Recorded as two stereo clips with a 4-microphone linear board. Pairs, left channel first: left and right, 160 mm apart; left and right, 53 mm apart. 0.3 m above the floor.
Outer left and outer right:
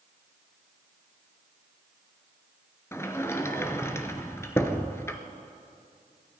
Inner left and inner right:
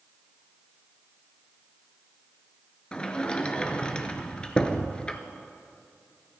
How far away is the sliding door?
About 0.9 m.